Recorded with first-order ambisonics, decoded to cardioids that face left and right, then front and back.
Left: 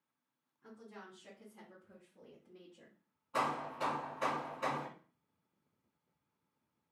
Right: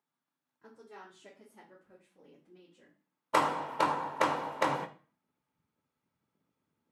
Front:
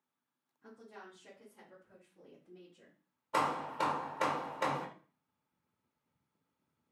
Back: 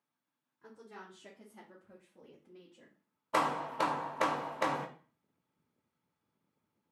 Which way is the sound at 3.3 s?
105° right.